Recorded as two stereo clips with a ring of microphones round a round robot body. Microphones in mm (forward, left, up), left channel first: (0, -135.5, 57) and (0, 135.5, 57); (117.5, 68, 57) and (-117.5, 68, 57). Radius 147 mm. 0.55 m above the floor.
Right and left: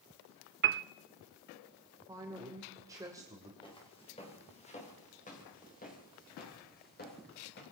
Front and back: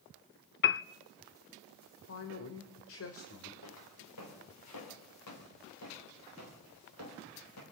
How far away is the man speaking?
About 3 m.